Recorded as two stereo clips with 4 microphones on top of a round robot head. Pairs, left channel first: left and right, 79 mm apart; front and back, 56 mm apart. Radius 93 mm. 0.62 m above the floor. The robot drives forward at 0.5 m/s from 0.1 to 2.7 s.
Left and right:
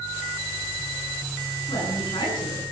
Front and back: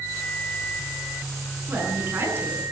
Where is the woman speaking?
130° left, 10 m.